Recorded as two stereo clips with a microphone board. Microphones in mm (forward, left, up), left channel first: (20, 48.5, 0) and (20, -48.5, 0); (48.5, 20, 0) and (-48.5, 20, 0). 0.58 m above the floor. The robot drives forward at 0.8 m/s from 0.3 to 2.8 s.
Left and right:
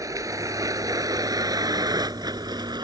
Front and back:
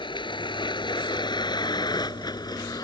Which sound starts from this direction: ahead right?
A vehicle, at 0.0 s.